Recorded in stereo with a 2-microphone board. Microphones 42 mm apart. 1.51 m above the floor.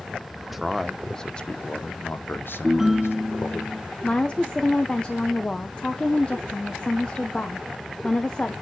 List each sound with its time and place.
0.4 s a man speaking: 5° right (ahead or behind), 1.2 m; by 3.6 s 80° left, 1.6 m
2.6 s a ringtone: 5° right (ahead or behind), 0.7 m
4.0 s a woman speaking: 20° left (ahead or behind), 1.0 m